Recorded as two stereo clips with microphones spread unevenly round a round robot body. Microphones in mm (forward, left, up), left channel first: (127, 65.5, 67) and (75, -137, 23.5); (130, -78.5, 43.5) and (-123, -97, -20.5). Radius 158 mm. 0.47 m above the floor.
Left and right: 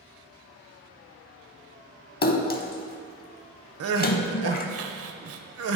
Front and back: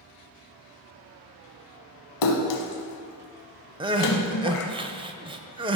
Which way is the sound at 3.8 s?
105° right.